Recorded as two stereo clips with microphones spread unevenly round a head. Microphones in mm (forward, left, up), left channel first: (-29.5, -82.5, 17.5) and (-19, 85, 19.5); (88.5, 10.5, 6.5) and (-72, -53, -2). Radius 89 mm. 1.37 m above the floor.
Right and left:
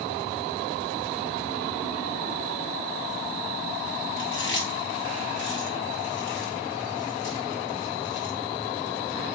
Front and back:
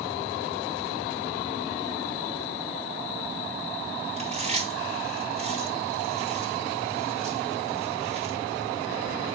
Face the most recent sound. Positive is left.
turn(degrees=-105)